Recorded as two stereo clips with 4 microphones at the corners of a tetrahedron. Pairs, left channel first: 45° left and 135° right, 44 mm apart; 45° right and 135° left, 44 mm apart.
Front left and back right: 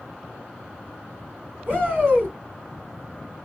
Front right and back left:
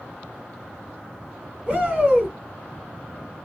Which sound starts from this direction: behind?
A shout, at 1.7 s.